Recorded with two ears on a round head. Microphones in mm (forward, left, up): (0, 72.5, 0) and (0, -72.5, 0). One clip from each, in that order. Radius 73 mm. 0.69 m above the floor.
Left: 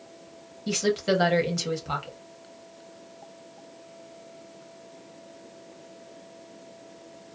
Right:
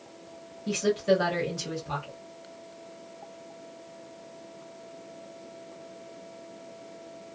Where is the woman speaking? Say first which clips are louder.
Even; 40° left (ahead or behind), 0.8 m.